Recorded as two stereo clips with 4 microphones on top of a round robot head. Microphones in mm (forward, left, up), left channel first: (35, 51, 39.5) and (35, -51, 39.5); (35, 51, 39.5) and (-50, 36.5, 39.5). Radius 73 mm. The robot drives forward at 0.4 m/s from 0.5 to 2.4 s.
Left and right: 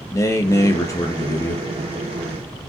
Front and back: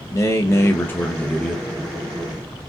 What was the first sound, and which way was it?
A man speaking, 45° left.